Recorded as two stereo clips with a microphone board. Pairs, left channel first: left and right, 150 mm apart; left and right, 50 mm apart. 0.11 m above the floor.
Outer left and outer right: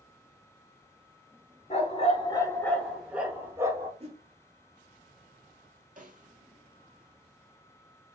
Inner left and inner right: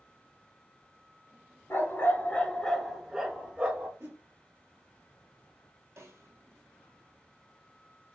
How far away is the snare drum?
About 0.6 m.